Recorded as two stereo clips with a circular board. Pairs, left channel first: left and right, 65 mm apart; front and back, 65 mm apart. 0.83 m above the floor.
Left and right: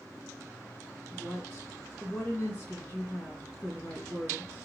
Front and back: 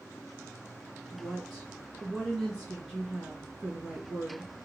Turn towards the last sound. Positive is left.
turn(degrees=110)